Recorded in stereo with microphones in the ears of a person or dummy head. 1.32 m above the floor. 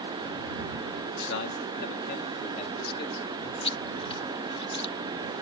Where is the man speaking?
75° left (ahead or behind); by 3.5 s 25° left (ahead or behind).